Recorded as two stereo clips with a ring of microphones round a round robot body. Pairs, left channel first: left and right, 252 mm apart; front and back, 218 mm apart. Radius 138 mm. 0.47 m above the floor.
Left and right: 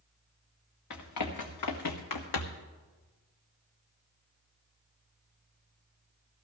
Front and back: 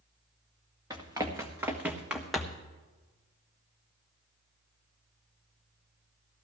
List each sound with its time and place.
0.9 s running footsteps: 105° left, 2 m; by 2.7 s 85° left, 1.3 m